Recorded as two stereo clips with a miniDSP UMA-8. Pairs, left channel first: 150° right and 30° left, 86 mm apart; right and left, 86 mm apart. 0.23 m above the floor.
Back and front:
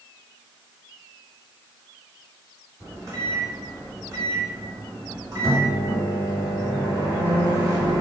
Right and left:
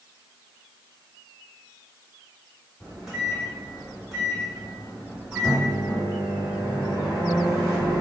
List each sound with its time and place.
2.8 s a microwave: 10° left, 1.6 m